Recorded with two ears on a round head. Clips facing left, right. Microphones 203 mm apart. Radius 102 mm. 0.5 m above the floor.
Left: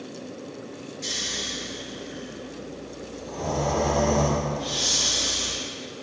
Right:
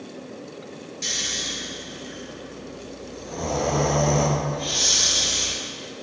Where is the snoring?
55° right (ahead or behind), 3.5 m.